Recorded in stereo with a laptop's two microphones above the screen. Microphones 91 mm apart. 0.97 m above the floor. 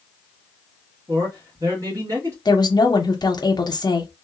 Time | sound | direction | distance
1.1 | a man speaking | 35° right (ahead or behind) | 1.4 m
2.5 | a woman speaking | 50° left (ahead or behind) | 0.7 m